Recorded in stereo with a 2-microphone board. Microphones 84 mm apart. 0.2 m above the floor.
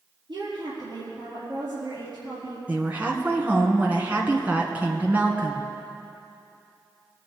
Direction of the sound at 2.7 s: 20° right (ahead or behind).